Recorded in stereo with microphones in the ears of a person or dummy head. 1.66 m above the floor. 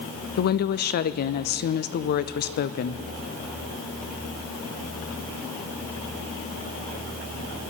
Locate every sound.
0.4 s a woman speaking: 50° left (ahead or behind), 0.5 m